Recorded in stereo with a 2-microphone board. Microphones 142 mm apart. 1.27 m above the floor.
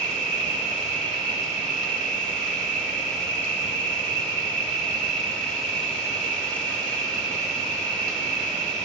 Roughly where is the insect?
Centre.